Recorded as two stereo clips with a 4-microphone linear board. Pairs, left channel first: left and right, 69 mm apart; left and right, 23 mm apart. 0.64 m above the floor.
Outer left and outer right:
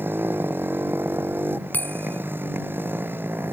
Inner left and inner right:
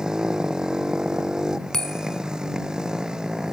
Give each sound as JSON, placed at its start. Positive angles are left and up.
{"t": 0.0, "sound": "a motorcycle", "side_deg": -30}
{"t": 1.7, "sound": "a bell", "side_deg": 25}